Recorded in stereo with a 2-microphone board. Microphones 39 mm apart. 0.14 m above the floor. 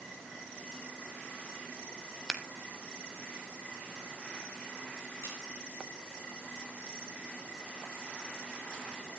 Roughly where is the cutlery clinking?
Left.